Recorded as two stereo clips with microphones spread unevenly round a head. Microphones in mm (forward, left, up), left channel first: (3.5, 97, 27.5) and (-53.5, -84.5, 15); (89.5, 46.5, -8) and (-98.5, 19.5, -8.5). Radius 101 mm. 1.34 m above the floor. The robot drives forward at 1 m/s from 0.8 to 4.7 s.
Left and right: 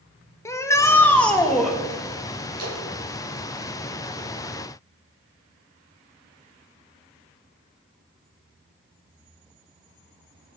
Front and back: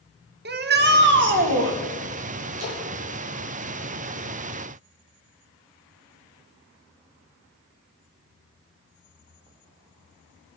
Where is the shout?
150° left, 1.2 m; by 1.8 s 165° left, 2 m.